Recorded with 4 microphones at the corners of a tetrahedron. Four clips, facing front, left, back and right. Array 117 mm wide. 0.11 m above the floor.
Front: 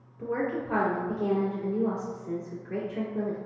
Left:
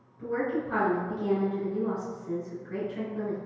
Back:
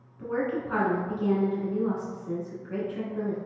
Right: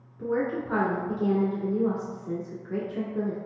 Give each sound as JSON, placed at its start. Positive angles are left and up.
{"t": 0.2, "sound": "a woman speaking", "azimuth_deg": -100, "distance_m": 1.5}